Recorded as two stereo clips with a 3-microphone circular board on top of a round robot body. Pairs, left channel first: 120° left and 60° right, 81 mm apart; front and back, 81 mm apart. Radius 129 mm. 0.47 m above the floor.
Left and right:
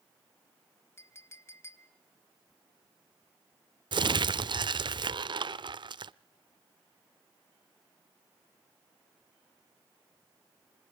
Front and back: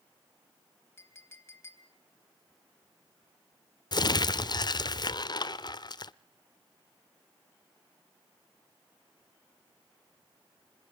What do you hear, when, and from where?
1.0 s a clink: 60° left, 2.5 m
3.9 s crumpling: 35° right, 1.0 m